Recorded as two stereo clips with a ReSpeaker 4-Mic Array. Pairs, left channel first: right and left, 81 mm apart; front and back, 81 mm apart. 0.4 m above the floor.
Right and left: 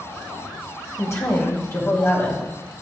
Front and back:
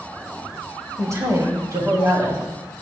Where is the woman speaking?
135° right, 1.9 m; by 2.8 s 140° right, 3 m.